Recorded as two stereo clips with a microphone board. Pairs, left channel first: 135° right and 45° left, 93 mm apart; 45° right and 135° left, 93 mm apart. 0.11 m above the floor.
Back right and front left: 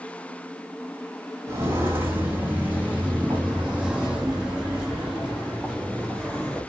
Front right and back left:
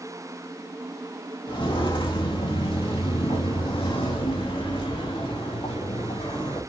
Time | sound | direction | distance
1.5 | footsteps | 15° right | 2.5 m